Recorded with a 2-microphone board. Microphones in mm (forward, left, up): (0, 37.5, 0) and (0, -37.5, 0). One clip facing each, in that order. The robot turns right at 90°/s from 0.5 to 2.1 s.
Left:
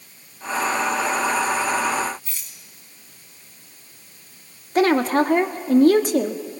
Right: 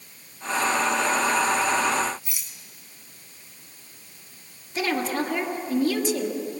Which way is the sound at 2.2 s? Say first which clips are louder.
Even; 10° right (ahead or behind).